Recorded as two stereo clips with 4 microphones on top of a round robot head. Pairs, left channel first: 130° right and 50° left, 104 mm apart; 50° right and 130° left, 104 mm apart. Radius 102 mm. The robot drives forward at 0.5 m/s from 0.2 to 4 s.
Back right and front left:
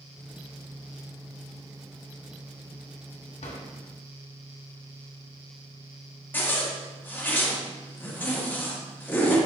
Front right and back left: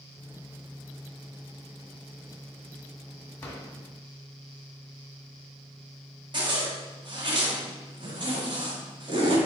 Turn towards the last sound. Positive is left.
turn(degrees=160)